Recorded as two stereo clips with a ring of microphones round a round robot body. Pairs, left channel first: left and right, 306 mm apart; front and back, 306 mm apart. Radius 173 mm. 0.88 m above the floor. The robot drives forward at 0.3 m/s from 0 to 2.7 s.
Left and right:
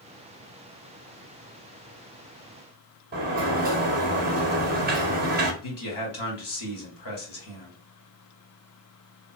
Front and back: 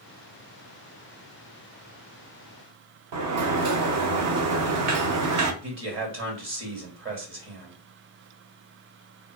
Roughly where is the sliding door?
Behind right.